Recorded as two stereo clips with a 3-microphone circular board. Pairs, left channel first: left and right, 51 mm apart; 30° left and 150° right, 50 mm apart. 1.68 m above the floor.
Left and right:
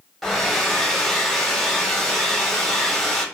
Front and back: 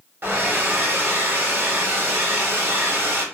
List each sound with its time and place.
0.2 s a hair dryer: 175° left, 1.0 m